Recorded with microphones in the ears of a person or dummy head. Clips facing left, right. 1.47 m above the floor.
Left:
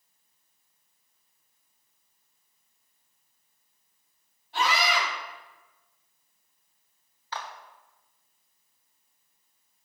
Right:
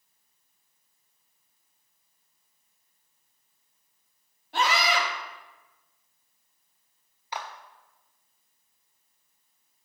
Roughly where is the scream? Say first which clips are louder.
Right 1 dB; right.